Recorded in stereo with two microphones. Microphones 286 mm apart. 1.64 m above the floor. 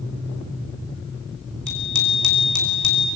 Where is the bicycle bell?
75° left (ahead or behind), 5.5 m.